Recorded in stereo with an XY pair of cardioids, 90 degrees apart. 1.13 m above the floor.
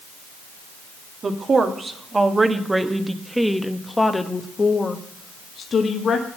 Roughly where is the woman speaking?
Ahead right.